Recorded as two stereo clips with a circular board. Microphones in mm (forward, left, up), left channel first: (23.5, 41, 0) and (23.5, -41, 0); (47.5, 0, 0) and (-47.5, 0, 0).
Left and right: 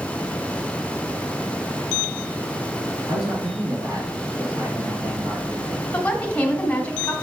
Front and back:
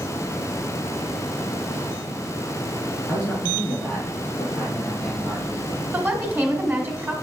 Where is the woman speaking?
145° left, 1.3 m.